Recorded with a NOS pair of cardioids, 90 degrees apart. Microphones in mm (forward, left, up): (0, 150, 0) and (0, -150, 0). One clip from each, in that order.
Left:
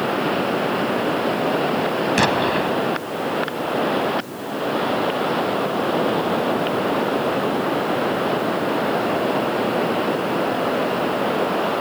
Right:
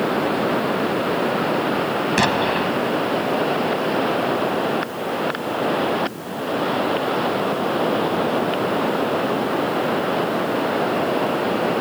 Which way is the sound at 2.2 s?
Straight ahead.